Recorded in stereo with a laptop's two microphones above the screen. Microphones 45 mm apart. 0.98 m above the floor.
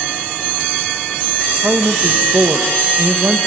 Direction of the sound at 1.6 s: 40° right (ahead or behind).